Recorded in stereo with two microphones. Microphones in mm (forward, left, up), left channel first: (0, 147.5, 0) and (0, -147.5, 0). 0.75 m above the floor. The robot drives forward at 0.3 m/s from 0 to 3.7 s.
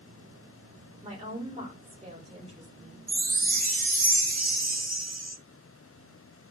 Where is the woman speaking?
25° right (ahead or behind), 2 m; by 3.0 s 20° right (ahead or behind), 2.5 m.